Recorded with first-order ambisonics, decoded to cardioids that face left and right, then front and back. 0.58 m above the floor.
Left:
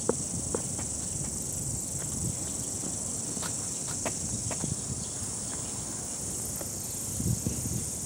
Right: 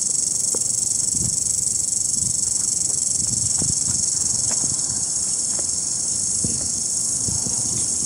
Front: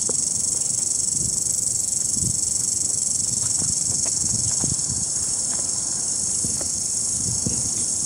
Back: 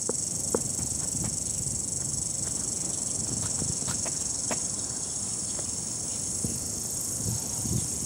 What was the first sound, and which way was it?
An insect, 60° right.